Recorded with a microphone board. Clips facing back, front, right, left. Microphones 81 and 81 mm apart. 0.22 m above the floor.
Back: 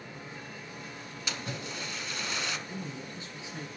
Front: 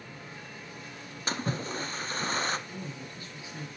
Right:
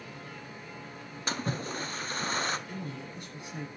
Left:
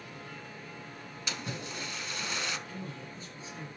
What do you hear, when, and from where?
1.3 s a splash: 45° right, 0.9 m
2.7 s a man speaking: 115° right, 5 m